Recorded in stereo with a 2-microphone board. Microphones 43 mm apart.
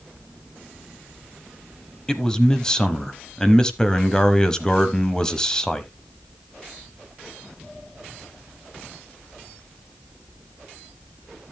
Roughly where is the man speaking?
Centre.